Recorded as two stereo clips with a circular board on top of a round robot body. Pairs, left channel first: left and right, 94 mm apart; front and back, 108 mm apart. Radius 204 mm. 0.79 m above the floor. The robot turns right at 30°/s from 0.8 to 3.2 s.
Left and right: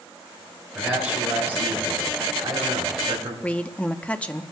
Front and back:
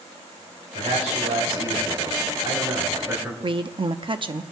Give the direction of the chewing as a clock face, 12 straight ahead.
No chewing in this recording.